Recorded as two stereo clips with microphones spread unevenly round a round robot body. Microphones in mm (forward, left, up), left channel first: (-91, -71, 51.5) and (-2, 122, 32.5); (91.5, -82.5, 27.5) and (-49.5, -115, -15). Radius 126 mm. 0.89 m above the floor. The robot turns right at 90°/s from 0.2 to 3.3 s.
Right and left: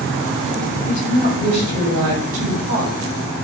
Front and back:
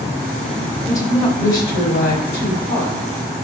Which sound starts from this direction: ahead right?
A woman speaking, at 0.9 s.